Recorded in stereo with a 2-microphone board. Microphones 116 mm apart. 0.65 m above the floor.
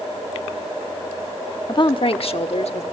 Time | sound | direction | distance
1.7 | a woman speaking | 40° left (ahead or behind) | 0.7 m